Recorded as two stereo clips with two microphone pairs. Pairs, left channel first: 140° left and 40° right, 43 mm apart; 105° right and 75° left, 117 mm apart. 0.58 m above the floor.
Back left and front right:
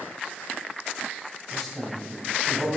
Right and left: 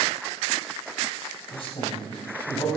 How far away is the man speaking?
About 3 m.